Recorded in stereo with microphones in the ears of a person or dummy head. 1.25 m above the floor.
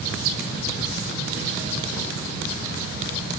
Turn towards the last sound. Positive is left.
No sound to turn to.